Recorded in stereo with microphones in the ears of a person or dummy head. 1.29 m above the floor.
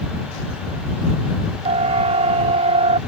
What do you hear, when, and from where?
1.6 s a siren: 35° right (ahead or behind); by 3.0 s 40° right (ahead or behind)